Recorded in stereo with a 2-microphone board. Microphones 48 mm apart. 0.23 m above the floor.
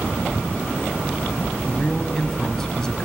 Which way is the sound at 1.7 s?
15° left (ahead or behind).